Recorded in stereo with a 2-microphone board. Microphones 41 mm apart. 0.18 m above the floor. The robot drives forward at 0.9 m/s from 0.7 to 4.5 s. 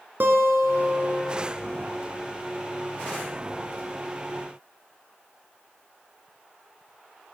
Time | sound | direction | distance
0.2 | a guitar | 60° right (ahead or behind) | 1.8 m